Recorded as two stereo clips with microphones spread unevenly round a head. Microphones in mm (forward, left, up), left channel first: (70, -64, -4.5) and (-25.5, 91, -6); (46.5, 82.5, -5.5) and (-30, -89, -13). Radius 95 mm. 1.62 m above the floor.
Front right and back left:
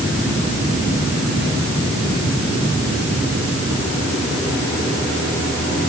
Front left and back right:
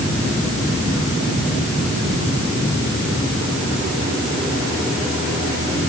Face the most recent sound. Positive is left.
No sound to turn to.